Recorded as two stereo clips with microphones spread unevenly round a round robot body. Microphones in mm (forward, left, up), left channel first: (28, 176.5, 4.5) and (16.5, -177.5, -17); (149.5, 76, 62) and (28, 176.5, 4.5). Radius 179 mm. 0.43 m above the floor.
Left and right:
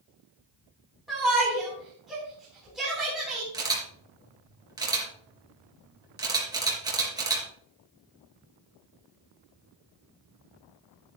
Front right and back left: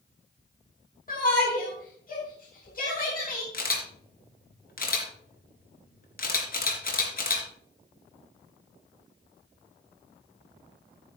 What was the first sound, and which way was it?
A shout, 5° right.